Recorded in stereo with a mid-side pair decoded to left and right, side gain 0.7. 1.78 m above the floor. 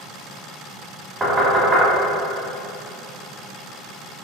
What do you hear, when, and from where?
1.2 s knocking: 20° right, 1.3 m